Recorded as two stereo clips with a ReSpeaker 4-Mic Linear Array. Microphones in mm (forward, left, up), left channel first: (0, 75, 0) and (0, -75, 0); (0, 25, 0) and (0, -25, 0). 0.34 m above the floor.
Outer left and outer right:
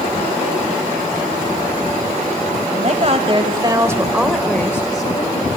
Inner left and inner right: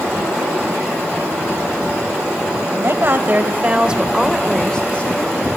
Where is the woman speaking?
55° right (ahead or behind), 1.7 m; by 5.5 s 40° left (ahead or behind), 1.6 m.